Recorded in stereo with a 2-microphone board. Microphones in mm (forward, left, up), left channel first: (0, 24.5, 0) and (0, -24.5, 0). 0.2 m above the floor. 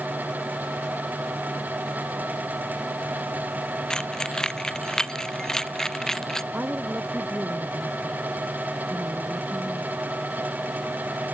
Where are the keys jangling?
15° left (ahead or behind); by 6.4 s 10° left (ahead or behind).